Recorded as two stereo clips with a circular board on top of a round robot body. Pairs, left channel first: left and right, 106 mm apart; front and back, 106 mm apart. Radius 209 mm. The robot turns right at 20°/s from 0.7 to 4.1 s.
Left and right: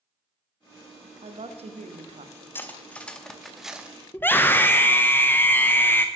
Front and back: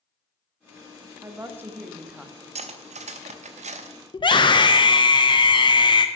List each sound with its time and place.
1.2 s a woman speaking: 115° right, 1.3 m; by 2.5 s 90° right, 1.3 m
2.5 s cutlery clinking: 160° left, 0.8 m; by 4.0 s 170° right, 0.8 m
4.1 s a scream: 25° left, 0.9 m